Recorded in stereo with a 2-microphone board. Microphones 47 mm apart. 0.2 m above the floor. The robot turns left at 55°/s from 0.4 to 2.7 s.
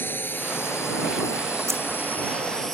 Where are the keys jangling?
80° right; by 1.8 s 70° right (ahead or behind).